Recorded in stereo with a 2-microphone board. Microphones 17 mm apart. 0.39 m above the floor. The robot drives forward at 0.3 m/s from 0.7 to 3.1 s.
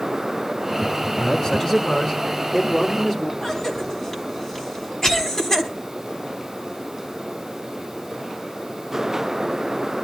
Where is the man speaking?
45° left (ahead or behind), 6 m; by 3.3 s 40° left (ahead or behind), 6.5 m.